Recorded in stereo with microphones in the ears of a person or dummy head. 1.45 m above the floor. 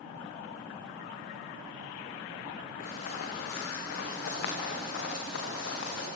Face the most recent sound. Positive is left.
turn(degrees=70)  # may be behind; listen again after turning